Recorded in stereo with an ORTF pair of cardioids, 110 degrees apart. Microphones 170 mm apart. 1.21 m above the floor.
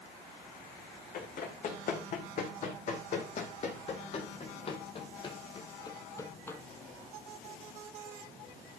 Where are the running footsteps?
55° left, 4 m; by 6.6 s 15° left, 1.8 m.